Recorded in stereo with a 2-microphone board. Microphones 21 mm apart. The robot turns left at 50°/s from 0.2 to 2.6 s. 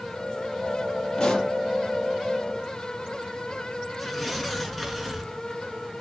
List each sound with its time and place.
1.2 s a pop: 20° left (ahead or behind), 6.5 m; by 1.5 s 40° left (ahead or behind), 6.5 m
4.0 s tearing paper: 5° left (ahead or behind), 4.5 m